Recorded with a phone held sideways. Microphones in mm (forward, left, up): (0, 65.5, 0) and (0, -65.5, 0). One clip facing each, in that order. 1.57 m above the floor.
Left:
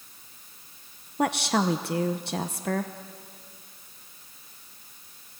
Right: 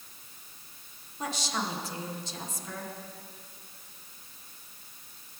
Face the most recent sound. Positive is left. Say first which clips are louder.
# left 9 dB
turn(degrees=65)  # may be behind; listen again after turning